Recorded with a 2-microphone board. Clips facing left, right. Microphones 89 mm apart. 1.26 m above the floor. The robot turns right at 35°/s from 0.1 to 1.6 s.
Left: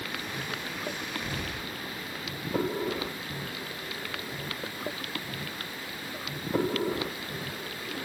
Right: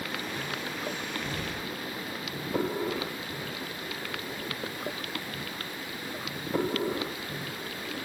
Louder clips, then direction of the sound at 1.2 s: Right 1 dB; 15° left (ahead or behind).